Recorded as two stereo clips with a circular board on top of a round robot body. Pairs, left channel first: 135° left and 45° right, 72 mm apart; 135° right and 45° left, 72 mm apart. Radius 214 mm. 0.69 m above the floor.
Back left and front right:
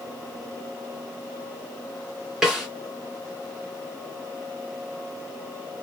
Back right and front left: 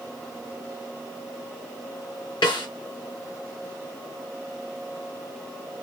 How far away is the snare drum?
About 0.7 m.